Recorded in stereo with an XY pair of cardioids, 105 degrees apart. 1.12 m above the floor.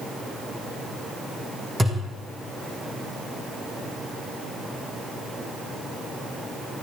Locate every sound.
1.8 s a thud: 10° right, 4.5 m